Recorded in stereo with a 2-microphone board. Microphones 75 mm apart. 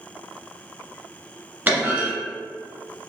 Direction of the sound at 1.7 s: 25° right (ahead or behind).